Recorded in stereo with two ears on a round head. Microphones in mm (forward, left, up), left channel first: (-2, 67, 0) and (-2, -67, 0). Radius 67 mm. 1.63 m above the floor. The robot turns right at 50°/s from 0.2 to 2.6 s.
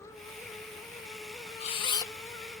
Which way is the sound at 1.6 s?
45° left (ahead or behind).